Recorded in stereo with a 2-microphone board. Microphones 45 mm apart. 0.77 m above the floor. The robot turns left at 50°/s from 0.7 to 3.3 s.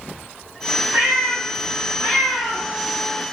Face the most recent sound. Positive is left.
turn(degrees=130)